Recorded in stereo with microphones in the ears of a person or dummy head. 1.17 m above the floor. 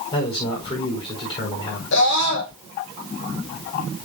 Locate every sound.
0.1 s a man speaking: 30° left (ahead or behind), 5 m
1.9 s a scream: 65° left (ahead or behind), 2.5 m